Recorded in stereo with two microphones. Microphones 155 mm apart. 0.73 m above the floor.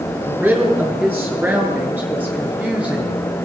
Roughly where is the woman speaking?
Centre.